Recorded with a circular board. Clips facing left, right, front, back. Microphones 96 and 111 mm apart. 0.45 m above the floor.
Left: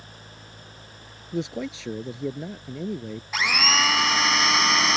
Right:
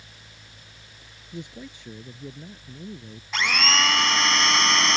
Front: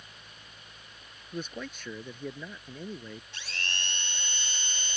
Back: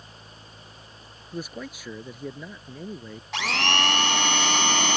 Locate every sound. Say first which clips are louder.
1.3 s a man speaking: left 10 dB, back 3 dB; 95° left
3.3 s a blender: even, back 18 dB; 175° left